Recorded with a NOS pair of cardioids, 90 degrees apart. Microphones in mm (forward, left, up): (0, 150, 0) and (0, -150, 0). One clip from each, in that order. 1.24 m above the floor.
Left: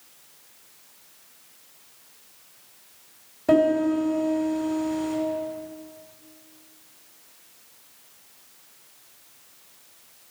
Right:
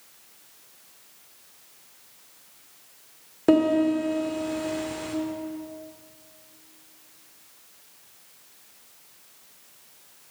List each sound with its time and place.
3.5 s a piano: 70° right, 2 m